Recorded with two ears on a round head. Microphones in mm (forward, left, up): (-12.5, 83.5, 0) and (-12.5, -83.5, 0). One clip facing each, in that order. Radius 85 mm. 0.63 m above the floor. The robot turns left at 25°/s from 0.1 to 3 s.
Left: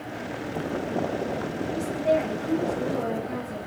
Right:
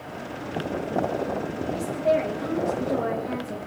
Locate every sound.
1.7 s a woman speaking: 35° right, 2.5 m; by 3.6 s 70° right, 2.5 m